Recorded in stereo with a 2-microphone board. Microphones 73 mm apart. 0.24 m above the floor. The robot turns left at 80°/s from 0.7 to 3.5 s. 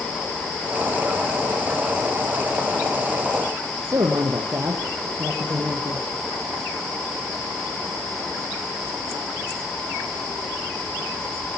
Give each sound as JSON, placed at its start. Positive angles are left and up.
{"t": 3.9, "sound": "a man speaking", "side_deg": -50, "distance_m": 5.5}